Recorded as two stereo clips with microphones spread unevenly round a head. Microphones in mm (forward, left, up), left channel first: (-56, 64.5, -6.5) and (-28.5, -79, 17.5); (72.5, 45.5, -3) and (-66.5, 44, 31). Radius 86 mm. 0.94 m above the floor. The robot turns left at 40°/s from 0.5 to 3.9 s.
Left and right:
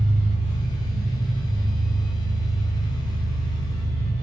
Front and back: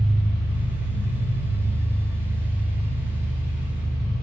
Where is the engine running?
125° right, 1.3 m; by 4.2 s 100° left, 1.3 m.